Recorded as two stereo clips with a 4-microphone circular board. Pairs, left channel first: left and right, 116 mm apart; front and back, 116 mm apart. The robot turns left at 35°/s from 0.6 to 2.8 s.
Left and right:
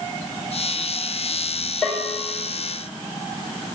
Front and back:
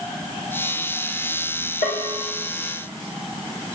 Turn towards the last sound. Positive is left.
turn(degrees=-25)